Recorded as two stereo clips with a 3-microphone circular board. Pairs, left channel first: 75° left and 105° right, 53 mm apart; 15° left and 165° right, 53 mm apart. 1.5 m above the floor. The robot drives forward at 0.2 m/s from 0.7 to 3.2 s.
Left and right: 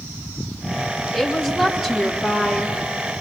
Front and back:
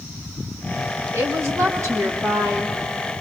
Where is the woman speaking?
170° left, 1.4 m.